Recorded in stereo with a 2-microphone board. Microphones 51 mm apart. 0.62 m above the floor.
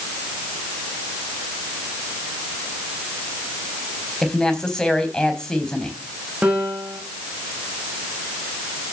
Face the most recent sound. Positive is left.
turn(degrees=-25)  # may be behind; listen again after turning